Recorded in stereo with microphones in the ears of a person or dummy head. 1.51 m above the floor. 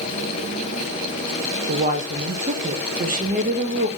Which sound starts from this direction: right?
A woman speaking, at 1.7 s.